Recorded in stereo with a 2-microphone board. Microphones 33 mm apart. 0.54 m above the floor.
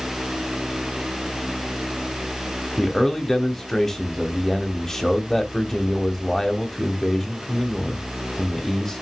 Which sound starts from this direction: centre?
A man speaking, at 2.8 s.